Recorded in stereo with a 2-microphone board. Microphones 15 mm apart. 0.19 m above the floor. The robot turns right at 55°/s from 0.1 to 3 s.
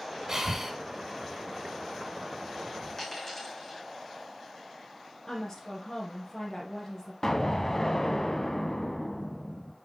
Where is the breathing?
35° right (ahead or behind), 1.8 m; by 0.7 s 25° right (ahead or behind), 1.8 m.